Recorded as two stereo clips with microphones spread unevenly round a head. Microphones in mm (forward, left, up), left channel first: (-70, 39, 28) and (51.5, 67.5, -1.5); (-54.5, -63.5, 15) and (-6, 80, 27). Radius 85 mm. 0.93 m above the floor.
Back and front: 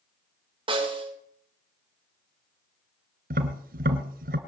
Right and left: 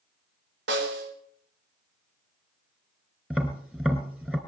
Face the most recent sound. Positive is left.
turn(degrees=-10)